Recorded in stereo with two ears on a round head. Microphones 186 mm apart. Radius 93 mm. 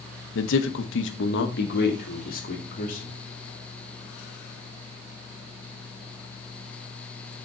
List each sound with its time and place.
0.3 s a man speaking: 60° left (ahead or behind), 0.9 m; by 3.2 s 40° left (ahead or behind), 2.5 m